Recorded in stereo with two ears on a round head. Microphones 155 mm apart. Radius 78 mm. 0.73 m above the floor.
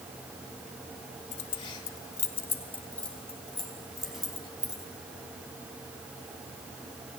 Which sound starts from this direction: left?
Keys jangling, at 1.3 s.